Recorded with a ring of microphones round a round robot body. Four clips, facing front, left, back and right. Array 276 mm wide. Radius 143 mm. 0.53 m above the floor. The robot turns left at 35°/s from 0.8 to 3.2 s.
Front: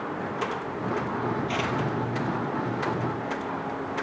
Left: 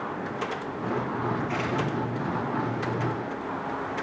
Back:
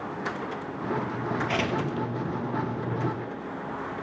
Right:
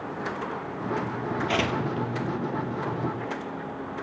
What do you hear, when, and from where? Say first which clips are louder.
1.5 s tearing paper: right 1 dB, even; 110° right, 3 m; by 2.1 s 130° right, 3 m